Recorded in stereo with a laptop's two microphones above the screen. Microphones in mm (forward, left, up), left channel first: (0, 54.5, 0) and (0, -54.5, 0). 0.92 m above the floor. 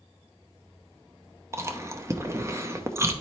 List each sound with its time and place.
1.5 s chewing: 25° right (ahead or behind), 0.7 m